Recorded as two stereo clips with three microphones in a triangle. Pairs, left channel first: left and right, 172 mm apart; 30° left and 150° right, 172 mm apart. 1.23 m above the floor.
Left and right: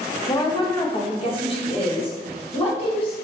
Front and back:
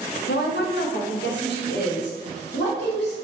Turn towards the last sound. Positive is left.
turn(degrees=35)